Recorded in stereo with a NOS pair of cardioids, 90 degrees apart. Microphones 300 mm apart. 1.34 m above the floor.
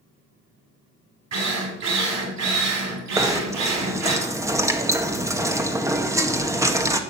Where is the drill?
55° right, 6.5 m.